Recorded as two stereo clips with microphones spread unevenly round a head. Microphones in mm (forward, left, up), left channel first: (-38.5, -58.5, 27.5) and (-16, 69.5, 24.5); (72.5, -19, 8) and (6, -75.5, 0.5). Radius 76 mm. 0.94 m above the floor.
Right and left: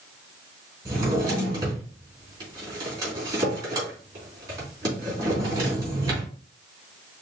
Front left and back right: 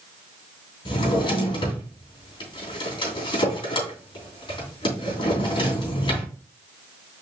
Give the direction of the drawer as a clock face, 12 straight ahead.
12 o'clock.